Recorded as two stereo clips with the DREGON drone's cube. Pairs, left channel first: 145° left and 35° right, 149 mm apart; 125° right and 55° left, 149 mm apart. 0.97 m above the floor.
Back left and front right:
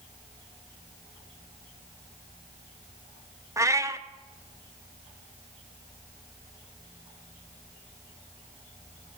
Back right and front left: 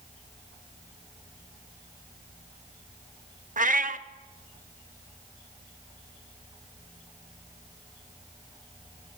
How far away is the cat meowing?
About 0.6 m.